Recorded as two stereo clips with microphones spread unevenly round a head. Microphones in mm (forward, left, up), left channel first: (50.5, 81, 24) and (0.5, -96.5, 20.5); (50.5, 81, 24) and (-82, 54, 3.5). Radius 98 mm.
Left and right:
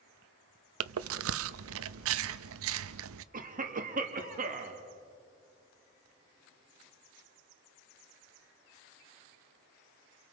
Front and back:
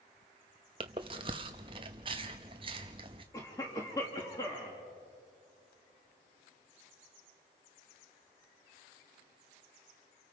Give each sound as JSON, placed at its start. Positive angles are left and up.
{"t": 0.8, "sound": "chewing", "azimuth_deg": -105, "distance_m": 0.6}
{"t": 3.3, "sound": "a cough", "azimuth_deg": -65, "distance_m": 1.9}